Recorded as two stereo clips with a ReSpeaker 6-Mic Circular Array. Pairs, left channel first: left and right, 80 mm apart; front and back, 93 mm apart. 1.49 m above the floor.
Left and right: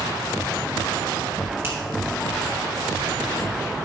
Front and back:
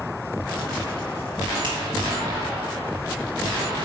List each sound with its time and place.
1.6 s a finger snap: 150° right, 3.5 m